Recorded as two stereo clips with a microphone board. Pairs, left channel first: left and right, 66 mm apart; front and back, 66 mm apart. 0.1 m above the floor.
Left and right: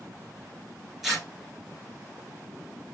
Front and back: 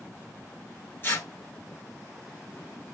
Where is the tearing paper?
5° right, 1.1 m.